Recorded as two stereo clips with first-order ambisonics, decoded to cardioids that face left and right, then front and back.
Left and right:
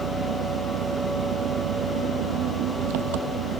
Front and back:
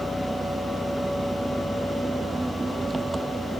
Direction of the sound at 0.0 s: 95° right.